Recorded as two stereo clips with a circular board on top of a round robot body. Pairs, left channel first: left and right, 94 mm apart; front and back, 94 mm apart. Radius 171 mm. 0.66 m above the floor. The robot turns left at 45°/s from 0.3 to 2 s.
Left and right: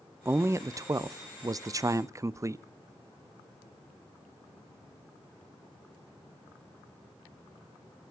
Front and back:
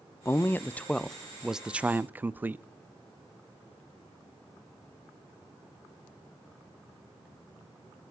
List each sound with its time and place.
0.2 s a man speaking: 45° right, 0.5 m; by 2.6 s 120° right, 0.5 m